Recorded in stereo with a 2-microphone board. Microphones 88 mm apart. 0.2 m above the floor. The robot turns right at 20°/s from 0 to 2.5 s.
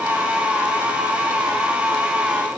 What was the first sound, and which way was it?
Only background noise.